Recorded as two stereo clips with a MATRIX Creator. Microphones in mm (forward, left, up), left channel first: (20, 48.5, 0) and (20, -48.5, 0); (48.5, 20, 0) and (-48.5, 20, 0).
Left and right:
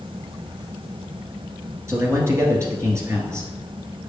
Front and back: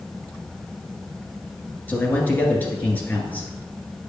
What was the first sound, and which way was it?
A man speaking, 55° right.